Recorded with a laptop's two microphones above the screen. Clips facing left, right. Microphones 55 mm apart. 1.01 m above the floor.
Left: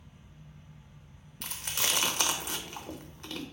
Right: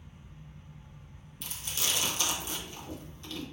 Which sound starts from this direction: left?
Chewing, at 1.4 s.